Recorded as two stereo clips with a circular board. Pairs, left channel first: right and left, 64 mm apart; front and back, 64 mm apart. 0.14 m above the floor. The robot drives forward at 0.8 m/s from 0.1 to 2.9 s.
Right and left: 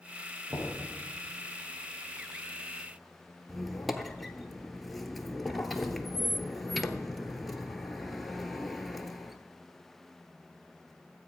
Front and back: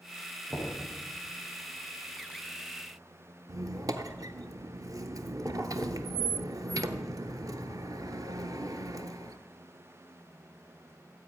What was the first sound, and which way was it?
Knocking, 95° left.